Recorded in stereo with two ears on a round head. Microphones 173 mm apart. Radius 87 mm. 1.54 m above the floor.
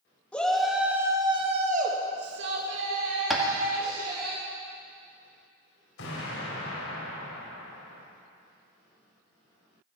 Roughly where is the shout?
Centre.